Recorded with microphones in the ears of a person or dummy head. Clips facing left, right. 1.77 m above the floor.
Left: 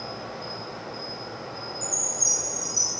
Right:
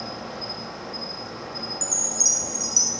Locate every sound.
0.0 s an insect: 70° right (ahead or behind), 3 m
1.8 s a chime: 55° right (ahead or behind), 3 m